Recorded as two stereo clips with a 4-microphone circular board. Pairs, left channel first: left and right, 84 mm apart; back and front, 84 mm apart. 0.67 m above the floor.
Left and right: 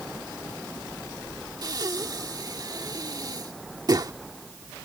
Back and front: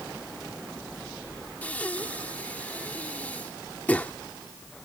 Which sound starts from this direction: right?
Breathing, at 1.6 s.